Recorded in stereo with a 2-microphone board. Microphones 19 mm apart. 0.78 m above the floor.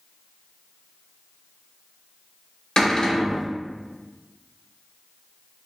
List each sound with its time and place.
2.8 s a cupboard door: 45° left (ahead or behind), 0.7 m